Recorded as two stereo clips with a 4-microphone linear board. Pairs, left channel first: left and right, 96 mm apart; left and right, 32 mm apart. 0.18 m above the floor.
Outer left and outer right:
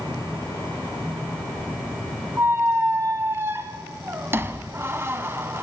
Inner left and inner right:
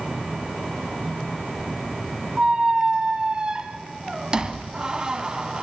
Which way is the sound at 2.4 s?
25° right (ahead or behind).